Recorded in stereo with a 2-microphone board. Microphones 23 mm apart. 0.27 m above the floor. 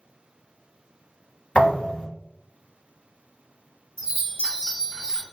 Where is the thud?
80° left, 2.0 m.